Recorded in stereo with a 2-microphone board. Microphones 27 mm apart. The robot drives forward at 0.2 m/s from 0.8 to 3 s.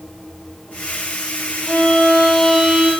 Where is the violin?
15° right (ahead or behind), 1.0 m.